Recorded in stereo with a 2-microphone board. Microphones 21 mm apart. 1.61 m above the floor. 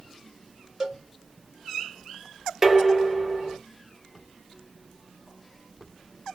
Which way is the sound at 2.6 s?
15° right (ahead or behind).